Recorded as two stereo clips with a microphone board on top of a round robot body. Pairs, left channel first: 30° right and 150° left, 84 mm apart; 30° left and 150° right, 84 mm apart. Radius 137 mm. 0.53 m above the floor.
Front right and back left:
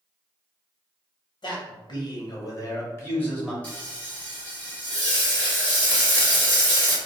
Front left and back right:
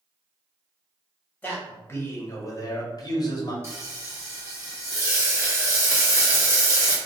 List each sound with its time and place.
1.4 s a man speaking: 40° right, 1.5 m; by 3.5 s 50° left, 1.2 m
3.6 s frying: 100° right, 2.0 m